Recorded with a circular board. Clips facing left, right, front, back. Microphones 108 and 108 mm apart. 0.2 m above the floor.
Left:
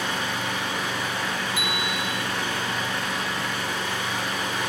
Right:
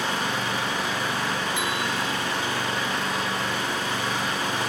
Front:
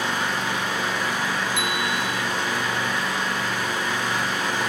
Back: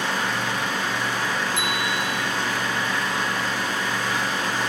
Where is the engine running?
65° right, 9.5 m.